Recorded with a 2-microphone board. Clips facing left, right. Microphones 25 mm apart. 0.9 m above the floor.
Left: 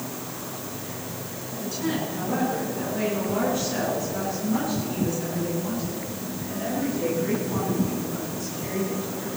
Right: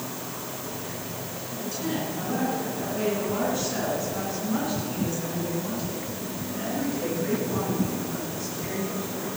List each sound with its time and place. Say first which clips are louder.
1.6 s a woman speaking: left 2 dB; 10° left (ahead or behind), 7 m; by 9.3 s 15° right (ahead or behind), 11 m